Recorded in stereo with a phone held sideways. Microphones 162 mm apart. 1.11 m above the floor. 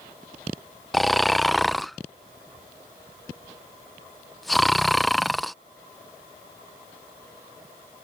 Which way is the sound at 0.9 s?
Centre (ahead or behind).